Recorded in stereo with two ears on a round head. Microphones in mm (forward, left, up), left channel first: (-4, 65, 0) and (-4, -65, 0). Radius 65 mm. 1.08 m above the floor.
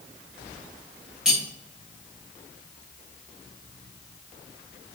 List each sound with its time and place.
1.2 s cutlery clinking: 5° right (ahead or behind), 3 m